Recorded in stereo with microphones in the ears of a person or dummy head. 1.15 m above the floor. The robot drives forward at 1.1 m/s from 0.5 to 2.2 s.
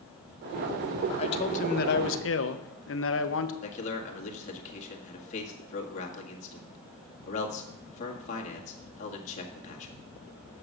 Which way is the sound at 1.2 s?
30° left (ahead or behind).